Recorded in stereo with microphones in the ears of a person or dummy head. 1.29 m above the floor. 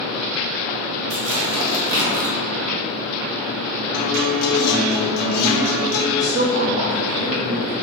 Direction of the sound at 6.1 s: 70° right (ahead or behind).